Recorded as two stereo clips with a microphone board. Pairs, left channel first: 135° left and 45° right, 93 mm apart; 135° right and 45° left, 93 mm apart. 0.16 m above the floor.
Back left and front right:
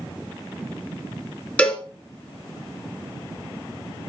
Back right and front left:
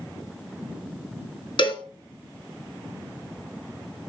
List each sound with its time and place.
1.6 s a cowbell: 150° right, 2.0 m